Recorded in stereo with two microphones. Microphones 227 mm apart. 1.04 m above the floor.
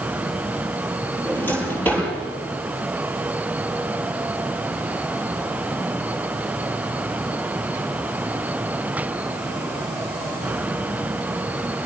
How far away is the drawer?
About 10 m.